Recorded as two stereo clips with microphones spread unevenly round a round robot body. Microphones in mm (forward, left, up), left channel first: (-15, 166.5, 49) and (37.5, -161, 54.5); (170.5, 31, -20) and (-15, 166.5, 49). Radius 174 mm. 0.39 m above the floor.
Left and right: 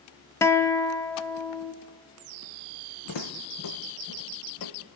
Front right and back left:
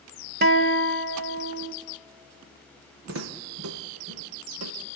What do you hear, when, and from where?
0.4 s a guitar: 165° left, 0.8 m
3.1 s footsteps: 130° left, 1.5 m